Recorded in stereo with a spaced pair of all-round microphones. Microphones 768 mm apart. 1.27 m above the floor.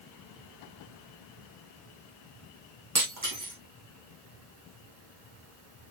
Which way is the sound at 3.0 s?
25° right (ahead or behind).